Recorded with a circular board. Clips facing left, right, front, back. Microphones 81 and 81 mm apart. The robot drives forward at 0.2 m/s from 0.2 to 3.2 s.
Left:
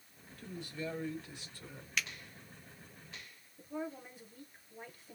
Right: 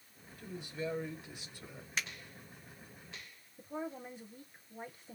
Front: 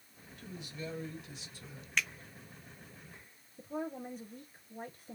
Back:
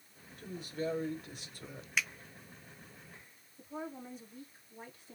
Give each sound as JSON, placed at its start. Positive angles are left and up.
{"t": 0.4, "sound": "a woman speaking", "azimuth_deg": -155, "distance_m": 1.2}
{"t": 2.0, "sound": "a finger snap", "azimuth_deg": -105, "distance_m": 0.7}
{"t": 3.6, "sound": "a woman speaking", "azimuth_deg": -30, "distance_m": 1.5}